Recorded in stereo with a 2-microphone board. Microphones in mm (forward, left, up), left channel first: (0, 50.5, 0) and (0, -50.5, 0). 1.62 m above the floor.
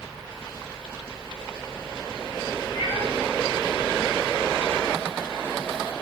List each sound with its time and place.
2.7 s a cat meowing: 60° left (ahead or behind), 4 m